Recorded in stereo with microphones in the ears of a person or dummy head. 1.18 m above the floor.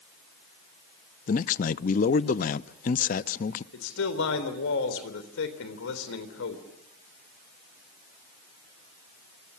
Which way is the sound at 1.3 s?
45° left (ahead or behind).